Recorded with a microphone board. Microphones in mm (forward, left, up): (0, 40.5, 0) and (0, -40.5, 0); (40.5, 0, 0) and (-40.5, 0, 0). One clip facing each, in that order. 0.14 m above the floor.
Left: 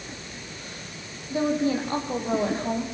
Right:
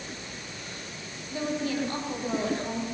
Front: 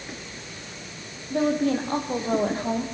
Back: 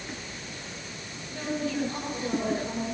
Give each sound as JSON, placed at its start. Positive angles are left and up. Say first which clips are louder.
{"t": 1.3, "sound": "a woman speaking", "louder": "left 6 dB, front 8 dB", "azimuth_deg": 30, "distance_m": 5.5}